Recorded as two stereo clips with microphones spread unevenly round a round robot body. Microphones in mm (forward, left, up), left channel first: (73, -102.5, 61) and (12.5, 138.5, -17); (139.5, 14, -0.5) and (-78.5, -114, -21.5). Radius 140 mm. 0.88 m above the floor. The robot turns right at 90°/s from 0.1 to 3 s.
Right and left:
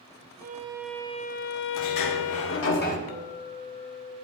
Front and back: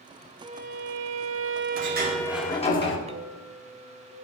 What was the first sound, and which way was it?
A violin, 140° left.